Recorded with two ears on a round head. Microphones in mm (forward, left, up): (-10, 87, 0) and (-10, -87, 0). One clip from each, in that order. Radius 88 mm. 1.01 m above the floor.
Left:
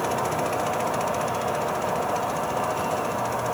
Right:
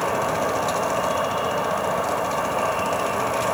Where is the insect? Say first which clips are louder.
Right 3 dB; 70° right (ahead or behind), 0.8 m.